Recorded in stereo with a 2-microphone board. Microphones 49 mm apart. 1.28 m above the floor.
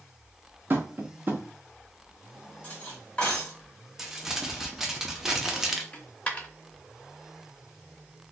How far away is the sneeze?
No sneeze in this recording.